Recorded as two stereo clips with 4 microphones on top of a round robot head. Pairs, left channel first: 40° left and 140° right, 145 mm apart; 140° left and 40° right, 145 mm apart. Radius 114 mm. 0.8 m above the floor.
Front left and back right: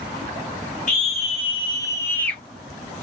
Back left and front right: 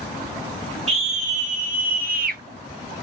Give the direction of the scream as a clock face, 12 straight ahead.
12 o'clock.